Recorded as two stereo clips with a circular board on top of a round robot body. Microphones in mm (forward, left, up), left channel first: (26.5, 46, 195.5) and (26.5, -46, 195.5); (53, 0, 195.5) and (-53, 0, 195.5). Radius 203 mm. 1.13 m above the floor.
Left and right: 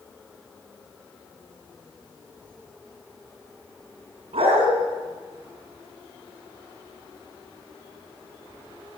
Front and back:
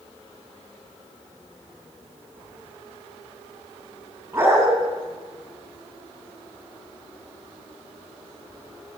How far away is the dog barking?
About 5 m.